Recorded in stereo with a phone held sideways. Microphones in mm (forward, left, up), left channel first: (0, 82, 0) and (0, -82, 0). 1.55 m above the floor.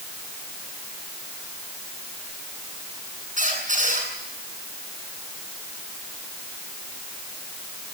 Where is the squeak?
50° right (ahead or behind), 8.5 m.